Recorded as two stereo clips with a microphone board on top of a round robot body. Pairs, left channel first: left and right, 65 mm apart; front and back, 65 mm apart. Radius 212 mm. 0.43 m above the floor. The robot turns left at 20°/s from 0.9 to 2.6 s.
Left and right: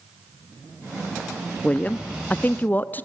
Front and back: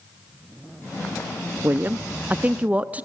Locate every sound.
1.6 s a woman speaking: 145° left, 1.1 m; by 3.0 s 130° left, 1.1 m